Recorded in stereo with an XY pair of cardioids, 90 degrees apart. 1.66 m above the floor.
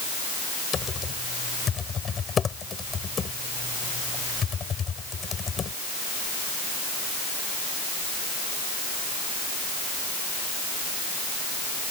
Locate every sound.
0.7 s typing on a keyboard: 50° left